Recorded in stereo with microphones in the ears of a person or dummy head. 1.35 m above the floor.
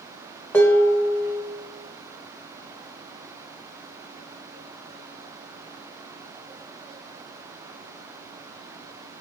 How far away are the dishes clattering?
About 0.6 m.